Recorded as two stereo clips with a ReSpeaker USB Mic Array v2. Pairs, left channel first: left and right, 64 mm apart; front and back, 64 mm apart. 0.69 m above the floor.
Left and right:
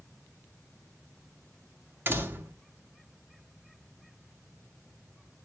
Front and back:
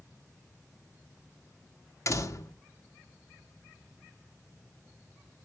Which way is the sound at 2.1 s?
35° right.